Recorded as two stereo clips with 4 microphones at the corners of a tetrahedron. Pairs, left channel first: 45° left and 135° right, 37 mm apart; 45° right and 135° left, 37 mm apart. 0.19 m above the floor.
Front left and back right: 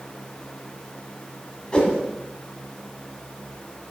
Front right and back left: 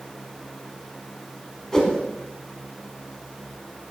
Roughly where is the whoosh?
Ahead.